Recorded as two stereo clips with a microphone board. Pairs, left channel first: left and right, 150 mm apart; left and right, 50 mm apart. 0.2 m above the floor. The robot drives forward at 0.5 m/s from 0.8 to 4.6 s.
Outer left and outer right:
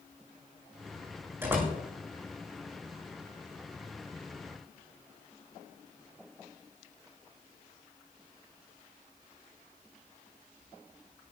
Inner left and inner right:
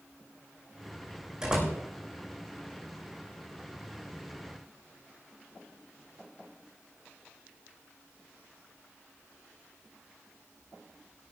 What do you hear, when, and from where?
1.4 s a door slam: 15° right (ahead or behind), 8 m